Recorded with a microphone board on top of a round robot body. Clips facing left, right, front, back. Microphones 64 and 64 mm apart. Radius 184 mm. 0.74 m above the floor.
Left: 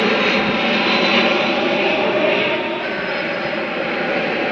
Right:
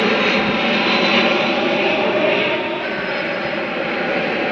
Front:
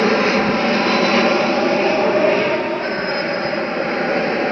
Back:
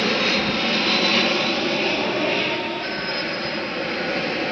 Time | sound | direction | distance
0.0 | an aircraft | straight ahead | ?